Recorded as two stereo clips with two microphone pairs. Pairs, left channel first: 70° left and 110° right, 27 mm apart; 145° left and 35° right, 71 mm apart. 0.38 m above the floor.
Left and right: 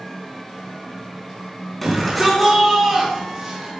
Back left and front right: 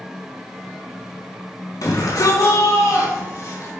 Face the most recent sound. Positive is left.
turn(degrees=180)